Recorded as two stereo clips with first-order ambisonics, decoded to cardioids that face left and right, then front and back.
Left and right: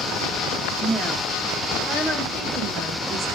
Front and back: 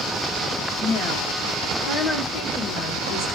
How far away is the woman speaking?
About 1.1 m.